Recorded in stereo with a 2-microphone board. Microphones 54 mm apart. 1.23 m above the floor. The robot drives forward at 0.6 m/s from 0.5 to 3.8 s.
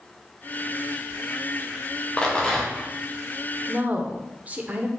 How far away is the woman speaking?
About 0.7 m.